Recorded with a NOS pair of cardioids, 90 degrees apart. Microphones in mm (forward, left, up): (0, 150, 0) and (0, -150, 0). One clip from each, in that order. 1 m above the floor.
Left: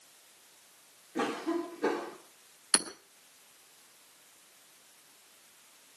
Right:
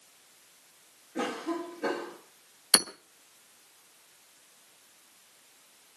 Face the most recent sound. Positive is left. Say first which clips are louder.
# right 6 dB
turn(degrees=-30)